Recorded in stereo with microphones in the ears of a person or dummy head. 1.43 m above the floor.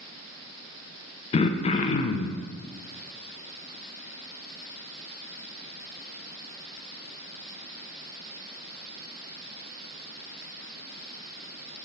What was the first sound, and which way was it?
Throat clearing, 35° left (ahead or behind).